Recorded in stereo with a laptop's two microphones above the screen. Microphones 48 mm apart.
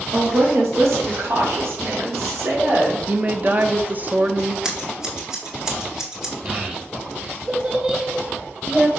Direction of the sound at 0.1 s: 75° right (ahead or behind).